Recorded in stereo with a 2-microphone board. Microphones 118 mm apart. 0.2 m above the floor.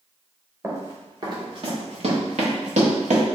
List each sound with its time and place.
0.6 s running footsteps: 20° right (ahead or behind), 1.8 m; by 3.3 s 85° right, 1.8 m